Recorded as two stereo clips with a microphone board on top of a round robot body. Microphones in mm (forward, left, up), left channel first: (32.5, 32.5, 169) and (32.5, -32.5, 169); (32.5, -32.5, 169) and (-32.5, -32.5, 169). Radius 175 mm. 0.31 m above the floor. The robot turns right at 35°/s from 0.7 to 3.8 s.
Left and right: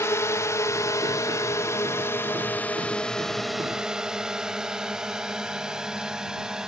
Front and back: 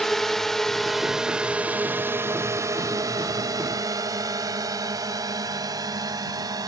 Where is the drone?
85° left; by 6.7 s 170° right.